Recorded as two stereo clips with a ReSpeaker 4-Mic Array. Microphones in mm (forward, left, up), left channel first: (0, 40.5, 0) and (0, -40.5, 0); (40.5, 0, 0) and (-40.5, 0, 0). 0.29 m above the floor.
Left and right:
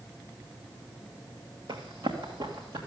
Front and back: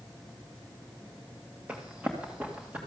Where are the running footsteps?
110° right, 1.9 m; by 2.8 s 105° right, 3 m.